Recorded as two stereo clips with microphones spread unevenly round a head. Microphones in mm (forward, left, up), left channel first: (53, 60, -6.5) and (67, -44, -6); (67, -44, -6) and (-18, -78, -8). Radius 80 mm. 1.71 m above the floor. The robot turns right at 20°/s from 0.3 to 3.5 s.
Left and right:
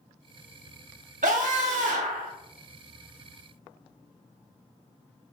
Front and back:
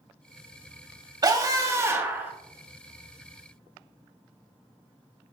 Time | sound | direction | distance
1.2 | a scream | 110° right | 2.5 m